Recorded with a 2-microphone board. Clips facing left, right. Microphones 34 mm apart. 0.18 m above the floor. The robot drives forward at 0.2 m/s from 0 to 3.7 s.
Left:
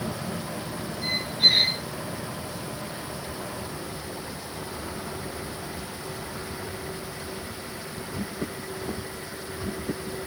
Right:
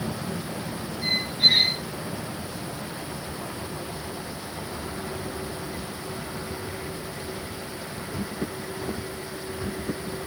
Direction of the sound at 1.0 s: 15° right (ahead or behind).